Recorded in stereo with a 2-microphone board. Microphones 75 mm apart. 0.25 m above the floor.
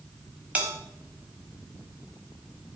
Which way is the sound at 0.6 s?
20° right (ahead or behind).